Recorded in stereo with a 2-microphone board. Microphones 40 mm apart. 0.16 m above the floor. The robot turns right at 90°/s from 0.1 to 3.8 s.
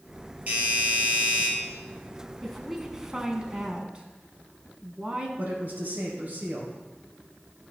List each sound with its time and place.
0.5 s a doorbell: 135° right, 4 m; by 1.5 s 45° right, 4 m
2.4 s a woman speaking: 10° left (ahead or behind), 1.1 m; by 5.3 s 25° right (ahead or behind), 1.1 m
5.4 s a woman speaking: 45° right (ahead or behind), 2.5 m